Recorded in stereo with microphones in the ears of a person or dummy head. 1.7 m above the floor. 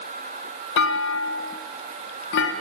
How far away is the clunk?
About 3.5 m.